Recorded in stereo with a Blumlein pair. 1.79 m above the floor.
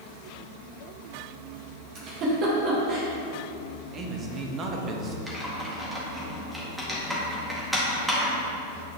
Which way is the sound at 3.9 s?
25° right.